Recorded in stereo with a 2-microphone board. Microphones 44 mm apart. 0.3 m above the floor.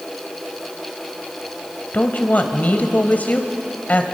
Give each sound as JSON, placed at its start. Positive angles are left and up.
{"t": 1.9, "sound": "a woman speaking", "side_deg": 40, "distance_m": 1.8}